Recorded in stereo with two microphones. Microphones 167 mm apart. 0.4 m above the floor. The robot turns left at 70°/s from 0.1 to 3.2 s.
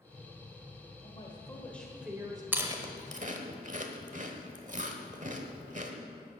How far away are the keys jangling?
No keys jangling in this recording.